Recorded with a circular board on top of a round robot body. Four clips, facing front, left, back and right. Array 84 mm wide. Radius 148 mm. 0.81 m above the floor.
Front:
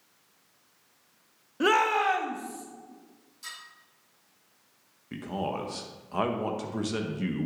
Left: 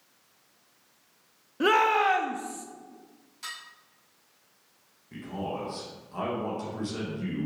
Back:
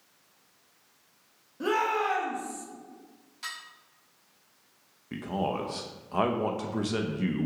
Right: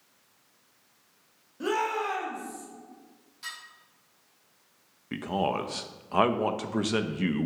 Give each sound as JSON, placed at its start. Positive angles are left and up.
{"t": 1.6, "sound": "a shout", "azimuth_deg": 35, "distance_m": 1.2}
{"t": 3.4, "sound": "dishes clattering", "azimuth_deg": 170, "distance_m": 4.0}
{"t": 5.1, "sound": "a man speaking", "azimuth_deg": -95, "distance_m": 0.8}